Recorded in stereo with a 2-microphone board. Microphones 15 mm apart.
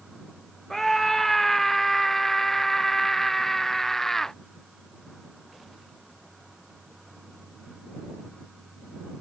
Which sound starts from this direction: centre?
A scream, at 0.7 s.